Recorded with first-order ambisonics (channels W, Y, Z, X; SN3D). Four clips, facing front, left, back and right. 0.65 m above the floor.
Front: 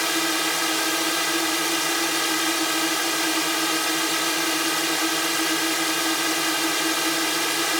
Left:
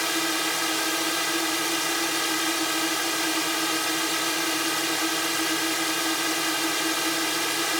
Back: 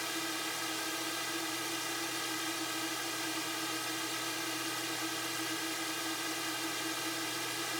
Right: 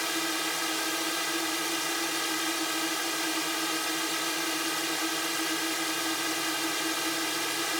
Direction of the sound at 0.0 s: 20° left.